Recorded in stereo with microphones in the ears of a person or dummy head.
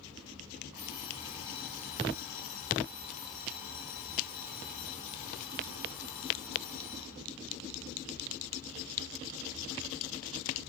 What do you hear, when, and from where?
0.7 s an alarm clock: 10° right (ahead or behind), 0.8 m